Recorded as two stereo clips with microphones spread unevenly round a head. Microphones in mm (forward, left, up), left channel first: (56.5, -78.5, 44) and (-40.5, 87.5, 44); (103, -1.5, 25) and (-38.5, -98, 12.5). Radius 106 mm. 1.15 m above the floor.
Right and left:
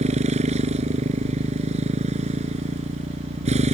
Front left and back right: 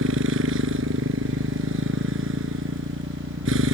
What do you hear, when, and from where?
0.0 s a motorcycle: straight behind